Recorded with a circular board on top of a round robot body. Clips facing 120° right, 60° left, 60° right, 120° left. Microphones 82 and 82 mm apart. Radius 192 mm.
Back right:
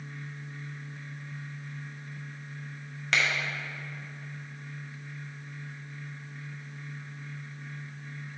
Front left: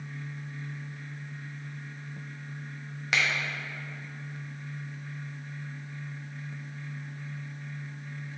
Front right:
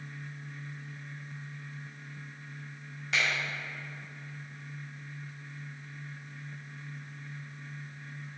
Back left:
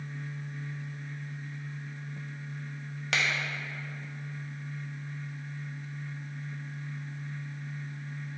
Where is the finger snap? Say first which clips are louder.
Even, even; 140° left, 1.4 m.